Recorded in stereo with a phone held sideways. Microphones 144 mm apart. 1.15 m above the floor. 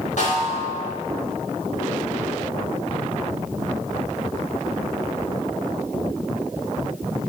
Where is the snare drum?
65° left (ahead or behind), 5 m.